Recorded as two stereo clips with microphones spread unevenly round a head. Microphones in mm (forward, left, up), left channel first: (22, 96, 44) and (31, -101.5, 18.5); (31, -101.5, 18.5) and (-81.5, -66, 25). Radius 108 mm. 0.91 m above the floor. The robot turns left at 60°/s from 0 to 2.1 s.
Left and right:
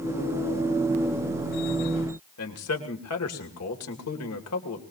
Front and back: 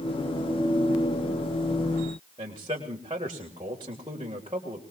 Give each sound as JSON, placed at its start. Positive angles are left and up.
{"t": 2.4, "sound": "a man speaking", "azimuth_deg": 95, "distance_m": 3.0}